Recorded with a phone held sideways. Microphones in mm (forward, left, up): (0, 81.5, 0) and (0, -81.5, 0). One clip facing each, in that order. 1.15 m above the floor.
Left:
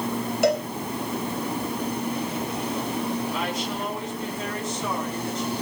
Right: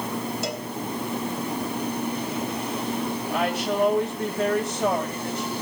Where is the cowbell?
80° left, 3.5 m.